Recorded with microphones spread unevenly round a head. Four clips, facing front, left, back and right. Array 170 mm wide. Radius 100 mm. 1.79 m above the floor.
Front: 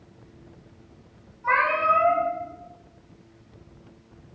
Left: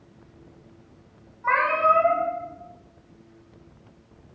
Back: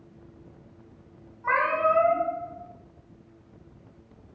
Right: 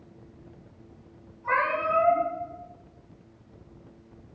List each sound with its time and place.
1.4 s a cat meowing: 95° left, 1.3 m